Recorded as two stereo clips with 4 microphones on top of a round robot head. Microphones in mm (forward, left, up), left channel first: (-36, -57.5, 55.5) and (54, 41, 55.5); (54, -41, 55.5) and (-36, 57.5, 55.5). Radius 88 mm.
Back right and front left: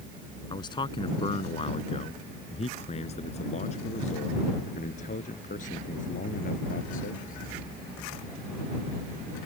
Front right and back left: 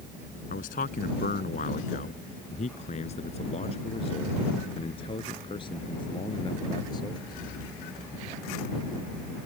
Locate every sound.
0.5 s a man speaking: 75° right; by 7.7 s 110° right